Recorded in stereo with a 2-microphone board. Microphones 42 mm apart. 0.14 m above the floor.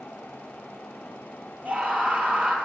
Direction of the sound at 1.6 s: 40° right (ahead or behind).